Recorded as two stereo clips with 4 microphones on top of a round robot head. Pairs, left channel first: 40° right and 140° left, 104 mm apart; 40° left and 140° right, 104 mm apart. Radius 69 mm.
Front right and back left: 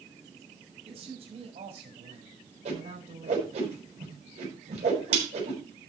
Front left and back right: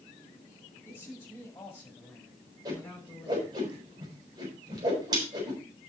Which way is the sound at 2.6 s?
165° left.